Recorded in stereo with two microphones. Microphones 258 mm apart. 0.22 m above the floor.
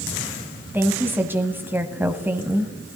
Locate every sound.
0.7 s a woman speaking: 10° right (ahead or behind), 1.1 m